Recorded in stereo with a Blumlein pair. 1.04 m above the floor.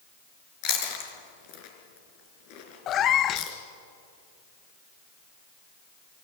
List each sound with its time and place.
0.6 s chewing: 45° left, 4 m
2.9 s a cat meowing: 30° left, 0.8 m